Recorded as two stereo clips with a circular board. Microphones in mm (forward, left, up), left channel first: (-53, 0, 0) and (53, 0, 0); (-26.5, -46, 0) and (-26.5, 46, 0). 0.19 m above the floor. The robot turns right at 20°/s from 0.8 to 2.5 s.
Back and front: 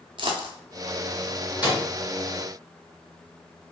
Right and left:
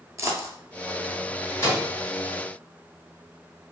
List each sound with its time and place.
0.2 s a dropped coin: 35° left, 0.6 m
1.6 s a microwave: 145° right, 1.6 m; by 1.9 s 140° right, 1.6 m